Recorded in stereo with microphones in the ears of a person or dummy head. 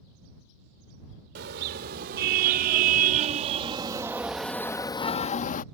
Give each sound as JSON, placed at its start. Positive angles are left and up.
{"t": 1.4, "sound": "a car horn", "side_deg": -55}